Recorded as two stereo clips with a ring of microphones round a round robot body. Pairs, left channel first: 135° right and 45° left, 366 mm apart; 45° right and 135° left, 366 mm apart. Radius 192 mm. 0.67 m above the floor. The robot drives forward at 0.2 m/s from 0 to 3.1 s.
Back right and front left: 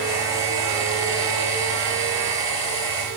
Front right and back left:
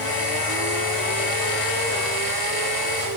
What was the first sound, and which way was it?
Only background noise.